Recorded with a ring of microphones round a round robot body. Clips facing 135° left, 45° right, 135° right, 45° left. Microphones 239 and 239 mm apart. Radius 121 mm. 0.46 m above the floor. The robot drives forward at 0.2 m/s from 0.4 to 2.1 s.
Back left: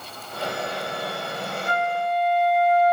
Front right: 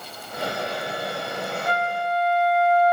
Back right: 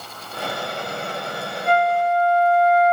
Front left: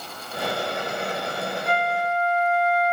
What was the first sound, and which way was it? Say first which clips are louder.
A flute: back left 2 dB, back right 8 dB; 165° left.